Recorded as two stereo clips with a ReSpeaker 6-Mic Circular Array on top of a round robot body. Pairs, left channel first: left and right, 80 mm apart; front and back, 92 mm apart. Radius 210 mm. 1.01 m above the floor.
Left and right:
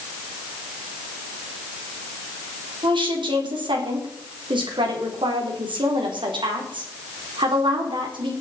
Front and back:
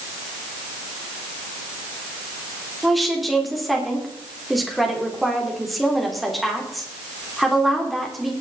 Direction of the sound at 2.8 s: 90° right.